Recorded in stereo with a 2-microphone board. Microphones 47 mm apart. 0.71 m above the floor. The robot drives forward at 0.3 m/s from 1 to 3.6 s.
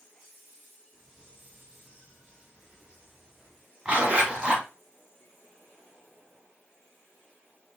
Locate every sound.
3.9 s a zipper: 20° right (ahead or behind), 1.8 m